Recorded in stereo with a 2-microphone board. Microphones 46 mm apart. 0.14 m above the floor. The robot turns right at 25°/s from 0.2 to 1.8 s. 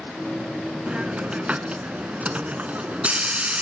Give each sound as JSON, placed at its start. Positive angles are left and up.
{"t": 0.9, "sound": "a hiss", "side_deg": -20, "distance_m": 0.9}